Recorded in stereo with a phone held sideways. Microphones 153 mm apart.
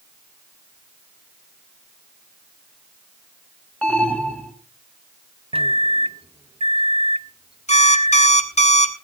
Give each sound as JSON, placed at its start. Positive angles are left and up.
{"t": 3.8, "sound": "an alarm", "side_deg": 10, "distance_m": 1.7}
{"t": 5.5, "sound": "a microwave", "side_deg": -40, "distance_m": 0.6}
{"t": 7.7, "sound": "an alarm clock", "side_deg": 50, "distance_m": 1.4}